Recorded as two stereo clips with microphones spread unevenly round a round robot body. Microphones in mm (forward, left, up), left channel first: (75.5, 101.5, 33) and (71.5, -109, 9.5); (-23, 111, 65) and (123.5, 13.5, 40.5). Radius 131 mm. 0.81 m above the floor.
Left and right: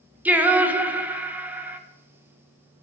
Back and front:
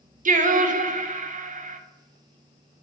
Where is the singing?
15° right, 0.9 m.